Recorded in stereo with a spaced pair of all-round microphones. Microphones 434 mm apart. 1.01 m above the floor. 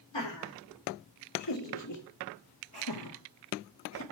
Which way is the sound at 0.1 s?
70° left (ahead or behind).